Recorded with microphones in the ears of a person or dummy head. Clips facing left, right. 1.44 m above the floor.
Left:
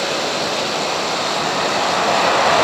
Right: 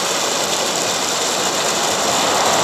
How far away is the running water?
About 5.5 m.